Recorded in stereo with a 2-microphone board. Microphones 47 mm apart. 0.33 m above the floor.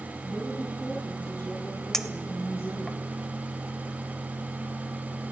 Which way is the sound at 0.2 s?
65° left (ahead or behind).